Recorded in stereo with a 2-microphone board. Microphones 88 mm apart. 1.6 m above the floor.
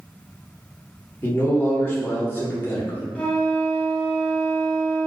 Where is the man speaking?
25° left (ahead or behind), 0.8 m.